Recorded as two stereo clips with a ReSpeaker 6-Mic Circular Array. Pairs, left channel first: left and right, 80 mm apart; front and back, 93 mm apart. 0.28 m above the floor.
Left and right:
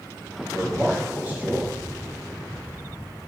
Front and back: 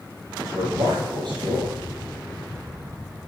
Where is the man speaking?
160° right, 5.5 m.